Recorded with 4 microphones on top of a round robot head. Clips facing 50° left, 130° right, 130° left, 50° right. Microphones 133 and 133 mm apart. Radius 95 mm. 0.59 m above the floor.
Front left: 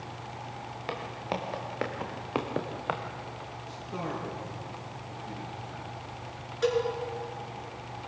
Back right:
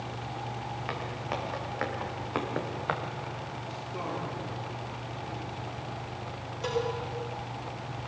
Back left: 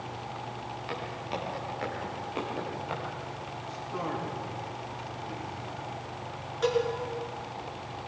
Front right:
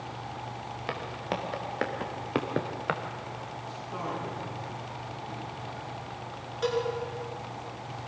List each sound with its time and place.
0.9 s footsteps: 15° right, 5 m; by 3.0 s 35° right, 2 m
3.7 s a man speaking: 35° left, 9.5 m
6.6 s a cowbell: 40° left, 6 m